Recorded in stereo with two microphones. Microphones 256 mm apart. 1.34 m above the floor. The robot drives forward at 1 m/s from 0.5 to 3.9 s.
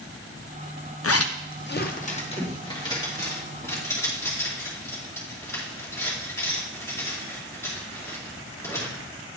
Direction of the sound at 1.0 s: 60° left (ahead or behind).